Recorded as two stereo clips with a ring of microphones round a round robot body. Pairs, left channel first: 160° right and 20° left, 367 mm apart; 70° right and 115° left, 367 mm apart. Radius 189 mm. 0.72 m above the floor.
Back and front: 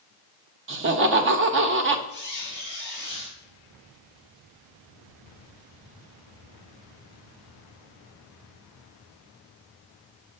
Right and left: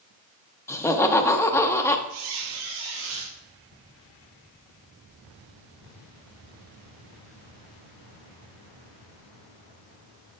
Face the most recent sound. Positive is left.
turn(degrees=100)